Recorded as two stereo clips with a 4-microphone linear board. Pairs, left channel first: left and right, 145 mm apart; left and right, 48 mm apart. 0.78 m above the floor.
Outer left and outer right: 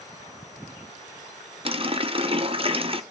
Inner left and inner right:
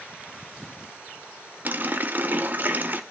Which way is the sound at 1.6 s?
40° right (ahead or behind).